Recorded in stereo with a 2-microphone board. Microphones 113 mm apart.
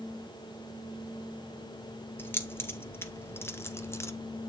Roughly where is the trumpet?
No trumpet in this recording.